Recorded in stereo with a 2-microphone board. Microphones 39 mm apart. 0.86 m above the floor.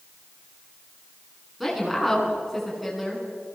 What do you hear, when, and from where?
1.6 s a woman speaking: 5° right (ahead or behind), 7.5 m